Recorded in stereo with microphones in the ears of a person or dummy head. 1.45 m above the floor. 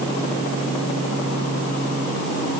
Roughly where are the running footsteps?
No running footsteps in this recording.